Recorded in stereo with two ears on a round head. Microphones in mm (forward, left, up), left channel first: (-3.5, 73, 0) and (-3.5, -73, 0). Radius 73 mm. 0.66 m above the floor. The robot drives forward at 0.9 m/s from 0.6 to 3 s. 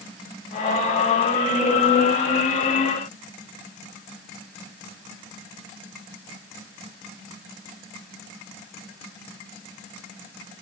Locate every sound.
Only background noise.